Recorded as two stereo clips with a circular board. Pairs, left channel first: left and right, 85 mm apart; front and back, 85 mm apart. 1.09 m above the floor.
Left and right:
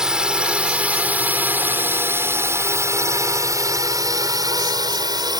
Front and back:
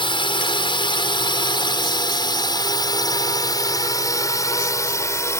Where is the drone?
10° right; by 5.4 s 55° right.